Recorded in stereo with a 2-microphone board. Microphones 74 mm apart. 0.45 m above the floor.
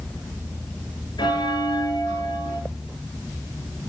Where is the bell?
75° left (ahead or behind), 1.4 m.